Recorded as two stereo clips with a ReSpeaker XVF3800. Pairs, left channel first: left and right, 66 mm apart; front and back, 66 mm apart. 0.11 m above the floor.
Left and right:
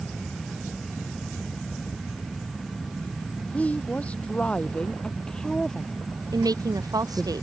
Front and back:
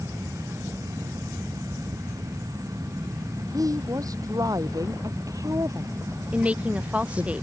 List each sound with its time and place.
3.5 s a woman speaking: 160° left; by 7.3 s 150° right
6.3 s a woman speaking: 105° right